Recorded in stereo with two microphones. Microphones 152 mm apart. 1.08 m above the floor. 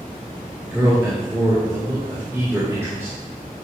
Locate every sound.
0.6 s a man speaking: 20° right (ahead or behind), 2 m